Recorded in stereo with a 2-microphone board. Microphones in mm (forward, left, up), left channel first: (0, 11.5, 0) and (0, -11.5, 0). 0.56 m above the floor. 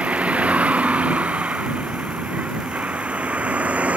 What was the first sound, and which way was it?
A vehicle, 85° right.